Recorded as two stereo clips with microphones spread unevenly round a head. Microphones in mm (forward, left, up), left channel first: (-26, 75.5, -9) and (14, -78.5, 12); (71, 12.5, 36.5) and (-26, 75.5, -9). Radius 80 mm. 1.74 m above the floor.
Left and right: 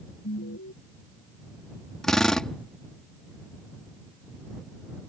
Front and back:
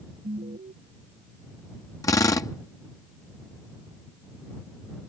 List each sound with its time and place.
0.2 s an alarm: 115° left
2.0 s a drill: 15° left